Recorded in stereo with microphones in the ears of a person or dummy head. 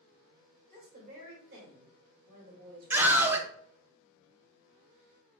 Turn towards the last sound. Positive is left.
turn(degrees=-10)  # may be behind; listen again after turning